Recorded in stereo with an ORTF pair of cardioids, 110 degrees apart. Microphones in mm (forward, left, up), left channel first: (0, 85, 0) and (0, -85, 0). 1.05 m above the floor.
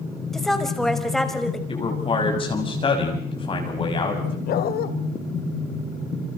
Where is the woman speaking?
Straight ahead, 5.5 m.